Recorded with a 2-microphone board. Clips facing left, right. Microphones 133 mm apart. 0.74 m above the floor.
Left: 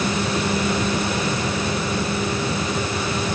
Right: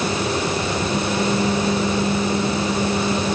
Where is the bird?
No bird in this recording.